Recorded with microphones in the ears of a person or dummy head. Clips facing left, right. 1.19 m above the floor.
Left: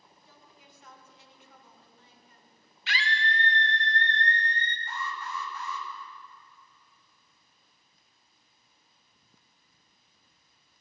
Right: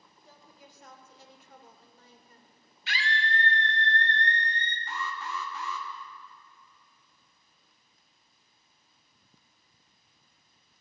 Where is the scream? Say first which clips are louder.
Even; 55° left (ahead or behind), 0.6 m.